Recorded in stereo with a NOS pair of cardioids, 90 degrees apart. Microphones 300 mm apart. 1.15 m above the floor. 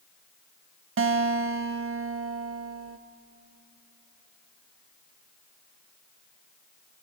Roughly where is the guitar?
Ahead right.